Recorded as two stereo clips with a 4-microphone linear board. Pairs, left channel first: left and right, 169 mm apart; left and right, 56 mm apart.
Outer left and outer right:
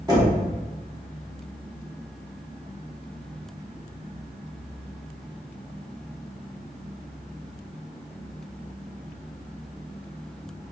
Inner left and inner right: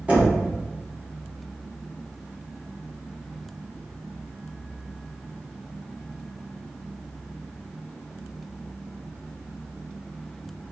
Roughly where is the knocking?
Right.